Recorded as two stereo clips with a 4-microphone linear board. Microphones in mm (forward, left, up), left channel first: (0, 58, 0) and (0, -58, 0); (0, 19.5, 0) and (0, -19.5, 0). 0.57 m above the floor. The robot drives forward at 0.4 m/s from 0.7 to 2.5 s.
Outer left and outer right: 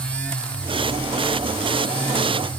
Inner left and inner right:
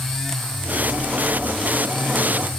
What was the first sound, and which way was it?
Only background noise.